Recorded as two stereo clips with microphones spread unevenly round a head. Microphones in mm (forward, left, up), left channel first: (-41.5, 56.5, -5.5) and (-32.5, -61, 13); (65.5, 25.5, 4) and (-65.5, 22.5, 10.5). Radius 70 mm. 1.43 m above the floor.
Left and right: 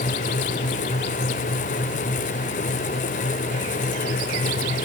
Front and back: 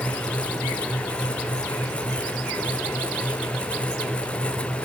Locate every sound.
Only background noise.